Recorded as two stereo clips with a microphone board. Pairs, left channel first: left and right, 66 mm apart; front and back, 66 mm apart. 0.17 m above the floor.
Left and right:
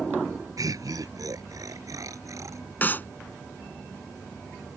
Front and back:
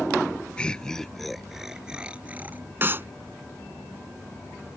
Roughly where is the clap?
Behind left.